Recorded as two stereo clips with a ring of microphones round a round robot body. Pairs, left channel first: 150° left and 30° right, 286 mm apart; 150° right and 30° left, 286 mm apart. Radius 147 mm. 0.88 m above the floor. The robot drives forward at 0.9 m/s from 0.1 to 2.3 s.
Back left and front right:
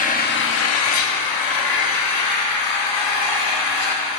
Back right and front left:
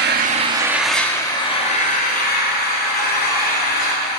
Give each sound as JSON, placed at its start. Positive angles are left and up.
{"t": 0.0, "sound": "an engine running", "azimuth_deg": 85, "distance_m": 1.1}